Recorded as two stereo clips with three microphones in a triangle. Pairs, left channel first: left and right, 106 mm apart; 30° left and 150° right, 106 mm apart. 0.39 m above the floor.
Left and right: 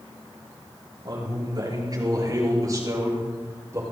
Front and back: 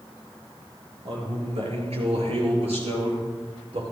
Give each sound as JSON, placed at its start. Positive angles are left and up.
{"t": 1.1, "sound": "a man speaking", "azimuth_deg": -135, "distance_m": 5.5}